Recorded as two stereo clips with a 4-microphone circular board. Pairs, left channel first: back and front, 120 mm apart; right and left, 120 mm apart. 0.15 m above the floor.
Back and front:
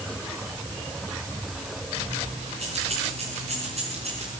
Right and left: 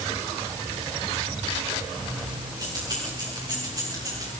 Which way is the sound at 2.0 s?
35° left.